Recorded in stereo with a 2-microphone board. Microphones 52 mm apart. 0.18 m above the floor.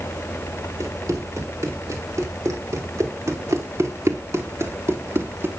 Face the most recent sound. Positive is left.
turn(degrees=-50)  # may be behind; listen again after turning